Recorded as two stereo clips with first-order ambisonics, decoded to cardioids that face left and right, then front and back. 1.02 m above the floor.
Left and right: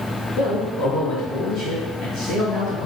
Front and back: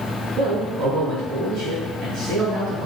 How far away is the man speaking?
About 1.4 m.